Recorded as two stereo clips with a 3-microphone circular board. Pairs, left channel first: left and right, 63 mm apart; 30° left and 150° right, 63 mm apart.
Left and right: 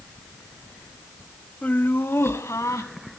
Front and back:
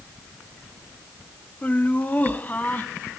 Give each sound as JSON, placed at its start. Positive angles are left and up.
{"t": 1.6, "sound": "laughter", "azimuth_deg": 60, "distance_m": 1.1}